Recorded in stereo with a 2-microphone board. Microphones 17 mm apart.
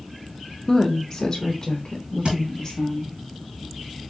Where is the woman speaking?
15° left (ahead or behind), 0.7 m; by 3.1 s 25° left (ahead or behind), 2 m.